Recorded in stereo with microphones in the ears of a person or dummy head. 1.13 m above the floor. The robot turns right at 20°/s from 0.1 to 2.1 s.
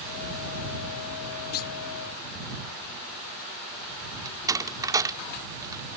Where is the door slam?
20° right (ahead or behind).